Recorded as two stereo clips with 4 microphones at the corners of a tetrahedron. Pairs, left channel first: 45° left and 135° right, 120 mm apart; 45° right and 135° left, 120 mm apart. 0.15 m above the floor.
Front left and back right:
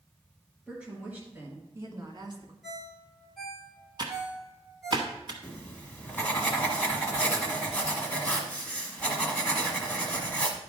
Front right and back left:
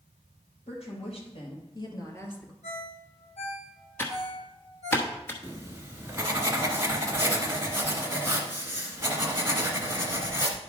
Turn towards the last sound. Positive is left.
turn(degrees=110)